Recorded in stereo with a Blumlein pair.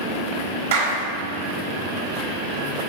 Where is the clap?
60° right, 3.5 m.